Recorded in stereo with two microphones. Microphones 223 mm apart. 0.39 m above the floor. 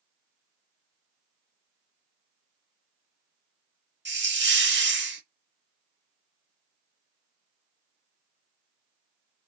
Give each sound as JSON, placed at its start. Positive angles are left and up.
{"t": 4.0, "sound": "a hiss", "side_deg": -50, "distance_m": 0.6}